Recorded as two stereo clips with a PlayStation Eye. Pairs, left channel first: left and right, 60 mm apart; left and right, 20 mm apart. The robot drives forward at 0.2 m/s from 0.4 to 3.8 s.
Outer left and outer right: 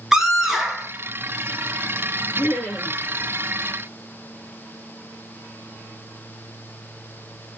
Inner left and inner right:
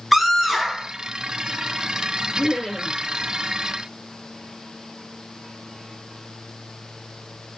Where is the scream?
5° right (ahead or behind), 1.2 m.